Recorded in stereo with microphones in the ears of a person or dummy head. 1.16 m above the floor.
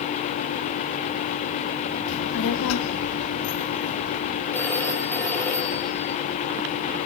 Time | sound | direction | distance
2.1 | a child speaking | 60° left (ahead or behind) | 1.2 m
4.5 | a phone ringing | 10° left (ahead or behind) | 2.5 m